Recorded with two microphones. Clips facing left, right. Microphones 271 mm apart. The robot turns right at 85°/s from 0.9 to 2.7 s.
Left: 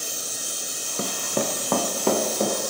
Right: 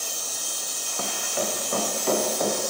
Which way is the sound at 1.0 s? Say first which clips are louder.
Left 4 dB; 30° left (ahead or behind).